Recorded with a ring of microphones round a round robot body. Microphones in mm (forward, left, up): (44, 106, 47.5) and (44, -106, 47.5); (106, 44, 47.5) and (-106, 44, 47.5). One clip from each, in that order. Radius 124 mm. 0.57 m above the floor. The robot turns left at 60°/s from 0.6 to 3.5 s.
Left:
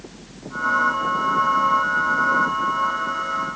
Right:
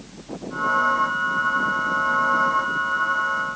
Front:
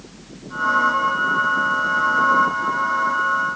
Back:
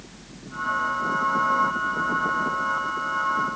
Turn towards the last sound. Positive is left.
No sound to turn to.